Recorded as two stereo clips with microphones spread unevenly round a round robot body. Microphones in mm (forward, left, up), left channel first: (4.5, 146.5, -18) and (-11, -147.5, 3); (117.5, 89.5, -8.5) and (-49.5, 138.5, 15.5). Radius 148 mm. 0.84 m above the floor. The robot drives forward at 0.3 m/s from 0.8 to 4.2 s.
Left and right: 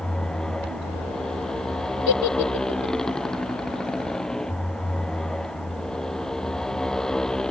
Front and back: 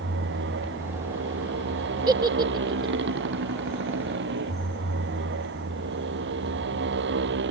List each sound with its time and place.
0.0 s a motorcycle: 175° left
2.1 s a giggle: 100° left; by 3.0 s 105° left